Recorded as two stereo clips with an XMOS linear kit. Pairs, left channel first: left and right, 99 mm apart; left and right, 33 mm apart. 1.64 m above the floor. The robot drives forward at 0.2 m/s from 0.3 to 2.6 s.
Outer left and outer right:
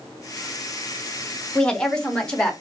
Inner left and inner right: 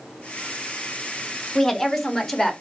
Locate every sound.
1.6 s a woman speaking: 10° left (ahead or behind), 0.7 m; by 2.5 s 5° left (ahead or behind), 0.9 m